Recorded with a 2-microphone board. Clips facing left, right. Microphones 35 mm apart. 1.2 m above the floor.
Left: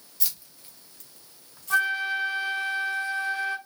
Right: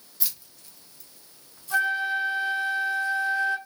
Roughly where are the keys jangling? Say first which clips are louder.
Even; centre.